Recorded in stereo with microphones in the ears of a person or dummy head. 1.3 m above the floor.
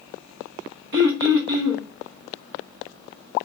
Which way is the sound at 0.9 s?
55° right (ahead or behind).